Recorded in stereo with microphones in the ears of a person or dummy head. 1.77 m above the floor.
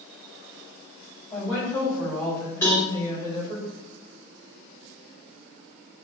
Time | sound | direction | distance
1.3 | a woman speaking | centre (ahead or behind) | 1.9 m
2.6 | a cowbell | 15° left (ahead or behind) | 1.2 m